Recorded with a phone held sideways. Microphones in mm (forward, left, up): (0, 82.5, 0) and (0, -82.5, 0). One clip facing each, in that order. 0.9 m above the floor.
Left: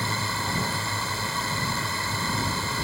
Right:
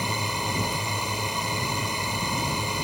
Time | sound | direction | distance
0.0 | a drone | 15° right (ahead or behind) | ?